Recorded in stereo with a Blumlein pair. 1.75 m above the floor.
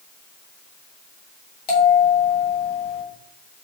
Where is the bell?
35° left, 1.6 m.